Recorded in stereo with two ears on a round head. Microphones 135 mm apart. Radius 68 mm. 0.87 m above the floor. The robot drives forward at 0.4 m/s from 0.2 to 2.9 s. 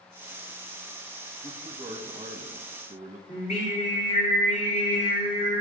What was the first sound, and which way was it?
A man speaking, 20° right (ahead or behind).